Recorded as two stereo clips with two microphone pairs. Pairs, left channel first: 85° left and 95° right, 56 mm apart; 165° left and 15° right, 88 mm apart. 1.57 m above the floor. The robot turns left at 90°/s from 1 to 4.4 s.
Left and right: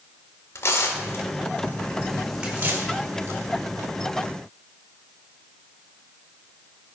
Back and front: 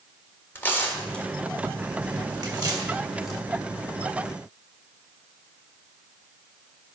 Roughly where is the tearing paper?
Left.